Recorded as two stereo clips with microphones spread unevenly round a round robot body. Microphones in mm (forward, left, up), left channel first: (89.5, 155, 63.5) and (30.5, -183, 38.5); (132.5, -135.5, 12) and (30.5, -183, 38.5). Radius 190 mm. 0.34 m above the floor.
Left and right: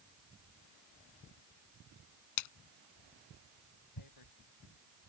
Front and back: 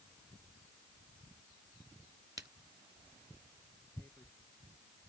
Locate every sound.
2.4 s a splash: 125° left
4.0 s tearing paper: 105° left